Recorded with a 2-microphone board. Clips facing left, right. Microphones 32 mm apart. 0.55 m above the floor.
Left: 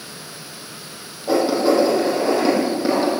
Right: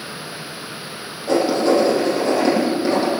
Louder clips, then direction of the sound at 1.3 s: Even; 10° left (ahead or behind).